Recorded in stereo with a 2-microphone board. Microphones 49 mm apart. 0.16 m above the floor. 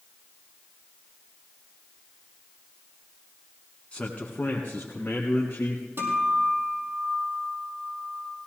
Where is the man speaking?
25° left (ahead or behind), 1.7 m; by 5.8 s 45° left (ahead or behind), 3.5 m.